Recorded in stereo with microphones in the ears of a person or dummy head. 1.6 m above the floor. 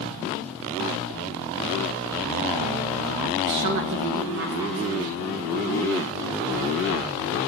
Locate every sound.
3.4 s a woman speaking: 40° right (ahead or behind), 0.7 m; by 5.3 s 70° right (ahead or behind), 3 m